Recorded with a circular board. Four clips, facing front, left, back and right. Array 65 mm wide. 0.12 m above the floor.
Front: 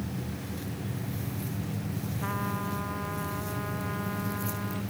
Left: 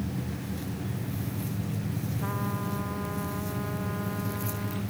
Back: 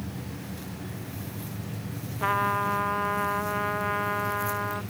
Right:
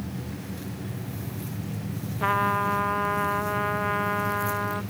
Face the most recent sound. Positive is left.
turn(degrees=-120)